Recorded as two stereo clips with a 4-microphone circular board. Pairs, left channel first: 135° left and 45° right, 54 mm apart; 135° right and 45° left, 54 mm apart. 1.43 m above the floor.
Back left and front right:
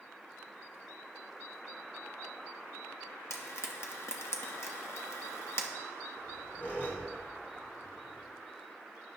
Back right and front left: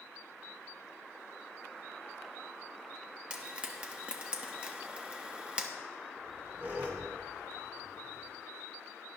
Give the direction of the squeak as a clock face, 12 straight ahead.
9 o'clock.